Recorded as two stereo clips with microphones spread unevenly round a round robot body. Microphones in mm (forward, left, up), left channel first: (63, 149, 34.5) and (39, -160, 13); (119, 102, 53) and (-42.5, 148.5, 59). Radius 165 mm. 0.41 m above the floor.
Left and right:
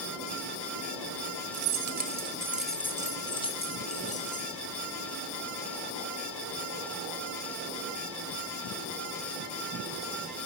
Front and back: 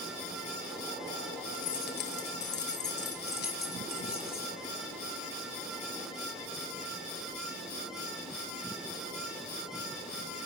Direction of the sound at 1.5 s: 65° right.